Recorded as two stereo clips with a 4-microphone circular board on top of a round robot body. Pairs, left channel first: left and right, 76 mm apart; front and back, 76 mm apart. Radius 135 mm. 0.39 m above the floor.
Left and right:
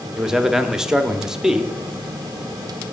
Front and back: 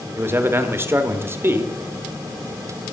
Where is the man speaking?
165° right, 1.0 m.